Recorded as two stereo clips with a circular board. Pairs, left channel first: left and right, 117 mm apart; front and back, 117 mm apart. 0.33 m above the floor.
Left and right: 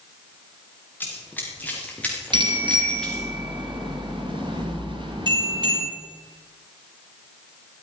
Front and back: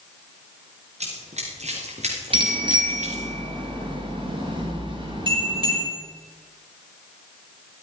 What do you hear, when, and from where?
1.0 s running footsteps: 165° left, 4 m; by 3.3 s 175° left, 3.5 m
2.3 s a bicycle bell: 135° right, 4 m